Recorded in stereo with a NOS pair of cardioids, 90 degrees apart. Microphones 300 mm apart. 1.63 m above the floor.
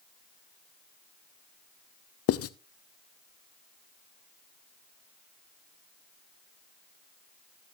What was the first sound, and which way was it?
Writing, 50° left.